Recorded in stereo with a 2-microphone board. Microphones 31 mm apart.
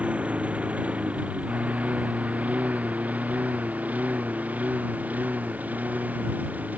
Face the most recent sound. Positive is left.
turn(degrees=-55)  # may be behind; listen again after turning